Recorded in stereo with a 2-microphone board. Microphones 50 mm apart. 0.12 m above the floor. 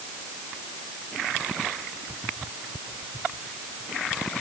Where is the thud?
No thud in this recording.